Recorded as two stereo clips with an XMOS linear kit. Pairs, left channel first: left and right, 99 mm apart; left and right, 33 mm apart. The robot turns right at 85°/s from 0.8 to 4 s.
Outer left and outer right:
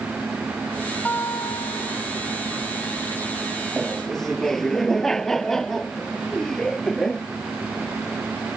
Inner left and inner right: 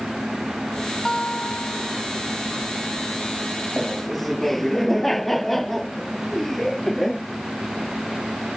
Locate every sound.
1.1 s a guitar: 20° left; by 2.0 s 100° left
3.8 s laughter: 10° right (ahead or behind); by 7.2 s 5° left (ahead or behind)